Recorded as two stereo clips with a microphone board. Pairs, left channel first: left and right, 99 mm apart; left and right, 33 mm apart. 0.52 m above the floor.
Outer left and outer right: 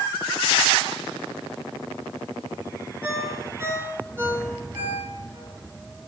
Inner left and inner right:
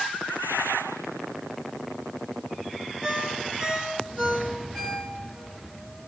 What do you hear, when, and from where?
3.0 s a ringtone: 25° right (ahead or behind), 3.5 m